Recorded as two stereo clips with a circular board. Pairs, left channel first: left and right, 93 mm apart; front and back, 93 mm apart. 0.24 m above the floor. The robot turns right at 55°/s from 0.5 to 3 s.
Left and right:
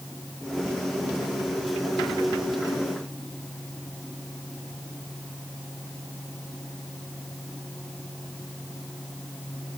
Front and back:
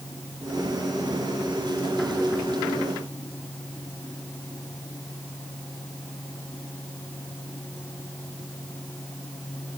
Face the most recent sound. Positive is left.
No sound to turn to.